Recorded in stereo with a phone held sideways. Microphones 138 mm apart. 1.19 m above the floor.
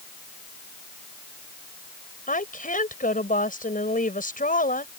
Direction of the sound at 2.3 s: 85° left.